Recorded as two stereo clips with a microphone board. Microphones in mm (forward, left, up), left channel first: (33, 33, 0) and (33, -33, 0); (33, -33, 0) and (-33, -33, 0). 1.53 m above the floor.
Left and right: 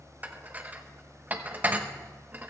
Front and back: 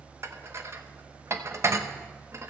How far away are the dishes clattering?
About 1.0 m.